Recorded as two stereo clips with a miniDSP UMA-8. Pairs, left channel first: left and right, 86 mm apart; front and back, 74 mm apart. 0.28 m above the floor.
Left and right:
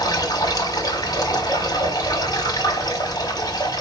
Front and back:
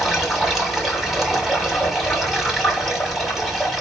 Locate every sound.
0.0 s running water: 90° left, 1.3 m